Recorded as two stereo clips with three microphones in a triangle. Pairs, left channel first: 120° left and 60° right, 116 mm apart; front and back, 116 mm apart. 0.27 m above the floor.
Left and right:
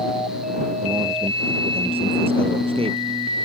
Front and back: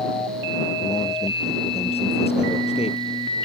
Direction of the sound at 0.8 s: 25° right.